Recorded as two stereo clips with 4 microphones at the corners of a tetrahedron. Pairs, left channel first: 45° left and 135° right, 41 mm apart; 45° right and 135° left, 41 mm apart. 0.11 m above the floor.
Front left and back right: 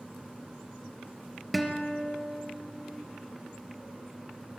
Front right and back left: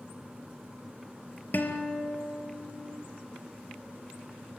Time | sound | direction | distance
1.5 | a guitar | 45° right | 2.5 m